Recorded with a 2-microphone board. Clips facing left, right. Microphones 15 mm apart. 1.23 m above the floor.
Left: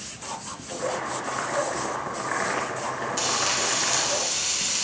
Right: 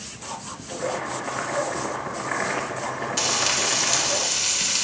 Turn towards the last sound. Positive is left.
turn(degrees=-20)  # may be behind; listen again after turning